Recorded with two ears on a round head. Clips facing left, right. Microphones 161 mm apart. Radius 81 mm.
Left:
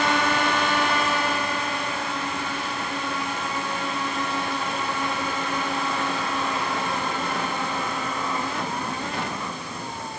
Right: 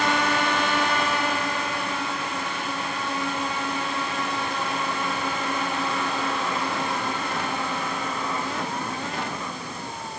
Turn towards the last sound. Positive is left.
No sound to turn to.